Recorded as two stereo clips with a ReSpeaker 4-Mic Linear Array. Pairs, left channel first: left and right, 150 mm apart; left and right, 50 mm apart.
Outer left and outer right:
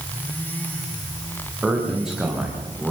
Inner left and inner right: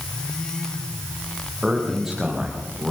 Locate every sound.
1.6 s a man speaking: 5° right (ahead or behind), 8 m